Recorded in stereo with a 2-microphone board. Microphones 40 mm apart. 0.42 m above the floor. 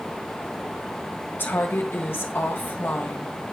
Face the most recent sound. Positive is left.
turn(degrees=60)  # may be behind; listen again after turning